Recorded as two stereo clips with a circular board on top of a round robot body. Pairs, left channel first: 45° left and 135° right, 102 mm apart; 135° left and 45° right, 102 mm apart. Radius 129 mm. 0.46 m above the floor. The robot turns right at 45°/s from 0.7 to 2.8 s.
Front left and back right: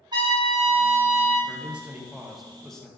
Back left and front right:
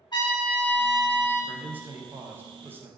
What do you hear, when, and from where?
0.1 s a trumpet: straight behind, 1.0 m; by 1.4 s 150° right, 1.0 m
1.5 s a man speaking: 90° right, 0.7 m; by 2.9 s 30° right, 0.7 m